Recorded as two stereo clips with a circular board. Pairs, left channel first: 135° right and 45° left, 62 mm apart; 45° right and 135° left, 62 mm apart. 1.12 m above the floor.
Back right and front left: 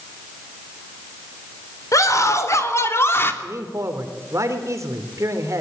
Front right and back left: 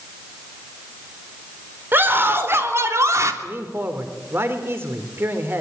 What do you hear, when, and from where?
1.9 s a scream: 170° right, 4 m; by 3.3 s 170° left, 3 m
3.4 s a man speaking: 85° left, 3.5 m